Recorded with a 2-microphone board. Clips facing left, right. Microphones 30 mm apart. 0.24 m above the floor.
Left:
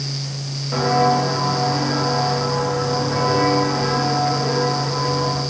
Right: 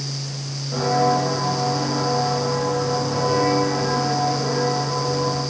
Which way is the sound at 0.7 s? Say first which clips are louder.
Left 2 dB; 60° left (ahead or behind).